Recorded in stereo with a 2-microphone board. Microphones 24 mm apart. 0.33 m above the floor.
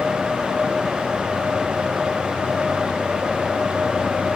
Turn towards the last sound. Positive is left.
No sound to turn to.